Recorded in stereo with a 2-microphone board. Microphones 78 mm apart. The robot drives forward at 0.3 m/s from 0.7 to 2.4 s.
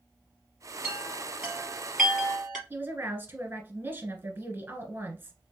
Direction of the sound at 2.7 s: 25° right (ahead or behind).